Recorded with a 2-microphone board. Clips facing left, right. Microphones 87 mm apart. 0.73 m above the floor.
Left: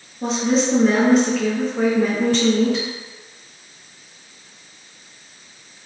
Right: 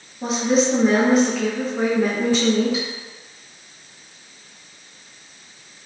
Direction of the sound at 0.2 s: 5° right (ahead or behind).